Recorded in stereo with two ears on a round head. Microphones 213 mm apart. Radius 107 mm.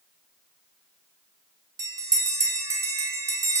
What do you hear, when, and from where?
1.8 s a bell: 15° right (ahead or behind), 0.6 m